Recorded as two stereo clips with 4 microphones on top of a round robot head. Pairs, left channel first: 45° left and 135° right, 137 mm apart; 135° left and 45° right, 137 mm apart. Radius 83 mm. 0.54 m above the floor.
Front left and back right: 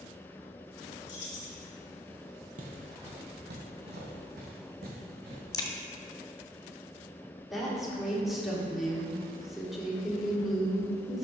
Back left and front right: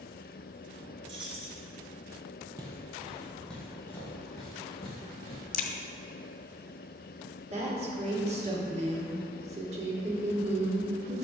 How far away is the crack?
About 0.7 m.